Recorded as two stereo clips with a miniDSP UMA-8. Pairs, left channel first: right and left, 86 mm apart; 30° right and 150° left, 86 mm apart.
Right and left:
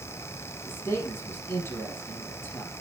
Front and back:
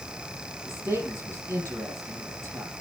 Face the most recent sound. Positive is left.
turn(degrees=-145)